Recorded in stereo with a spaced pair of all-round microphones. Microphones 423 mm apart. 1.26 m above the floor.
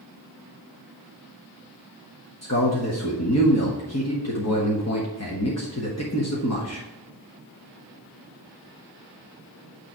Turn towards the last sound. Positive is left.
turn(degrees=40)  # may be behind; listen again after turning